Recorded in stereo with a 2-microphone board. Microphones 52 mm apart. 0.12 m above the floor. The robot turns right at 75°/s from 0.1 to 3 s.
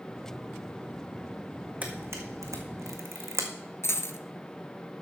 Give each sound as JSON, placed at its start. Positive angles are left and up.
{"t": 1.8, "sound": "a camera shutter", "side_deg": -35, "distance_m": 1.6}
{"t": 3.8, "sound": "a dropped coin", "side_deg": 55, "distance_m": 0.7}